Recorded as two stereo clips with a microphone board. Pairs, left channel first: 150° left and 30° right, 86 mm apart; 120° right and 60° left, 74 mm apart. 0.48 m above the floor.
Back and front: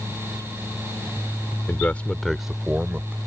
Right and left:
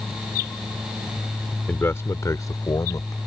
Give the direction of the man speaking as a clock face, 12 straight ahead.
6 o'clock.